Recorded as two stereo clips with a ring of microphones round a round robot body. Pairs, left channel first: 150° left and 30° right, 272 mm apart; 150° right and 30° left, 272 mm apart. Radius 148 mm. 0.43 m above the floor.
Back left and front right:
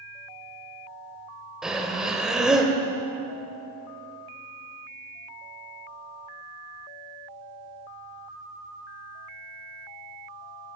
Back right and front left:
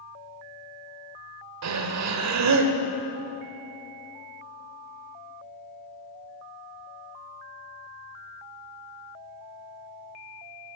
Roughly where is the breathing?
Ahead left.